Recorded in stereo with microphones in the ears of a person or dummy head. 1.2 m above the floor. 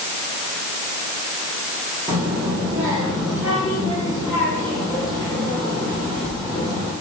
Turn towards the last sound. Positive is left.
turn(degrees=5)  # may be behind; listen again after turning